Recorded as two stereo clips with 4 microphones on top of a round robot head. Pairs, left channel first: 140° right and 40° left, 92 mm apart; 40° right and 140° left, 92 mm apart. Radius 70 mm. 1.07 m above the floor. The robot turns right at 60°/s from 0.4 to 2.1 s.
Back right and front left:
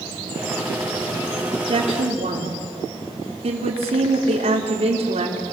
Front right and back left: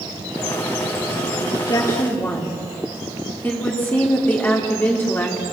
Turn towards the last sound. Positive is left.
turn(degrees=30)